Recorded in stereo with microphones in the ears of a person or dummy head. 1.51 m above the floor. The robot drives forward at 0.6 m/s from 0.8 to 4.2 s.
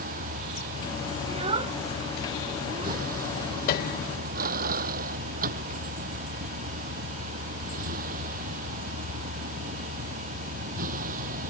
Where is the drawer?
No drawer in this recording.